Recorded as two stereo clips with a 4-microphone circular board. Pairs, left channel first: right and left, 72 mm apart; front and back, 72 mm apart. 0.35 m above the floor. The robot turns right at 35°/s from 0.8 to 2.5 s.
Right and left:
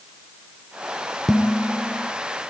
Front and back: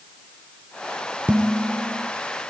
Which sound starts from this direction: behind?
Dishes clattering, at 1.3 s.